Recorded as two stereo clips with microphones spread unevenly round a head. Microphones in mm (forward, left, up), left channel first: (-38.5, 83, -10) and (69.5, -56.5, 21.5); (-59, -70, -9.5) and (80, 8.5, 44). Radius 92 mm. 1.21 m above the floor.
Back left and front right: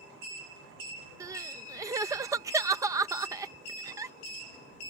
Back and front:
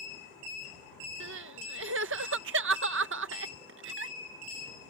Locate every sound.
1.2 s crying: 25° left